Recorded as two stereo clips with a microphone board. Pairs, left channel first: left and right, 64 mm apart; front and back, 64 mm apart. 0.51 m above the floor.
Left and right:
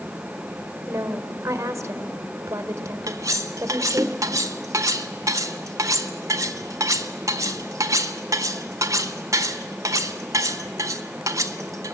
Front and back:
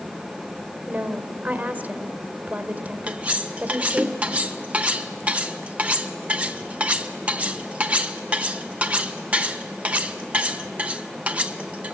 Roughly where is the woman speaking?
Behind right.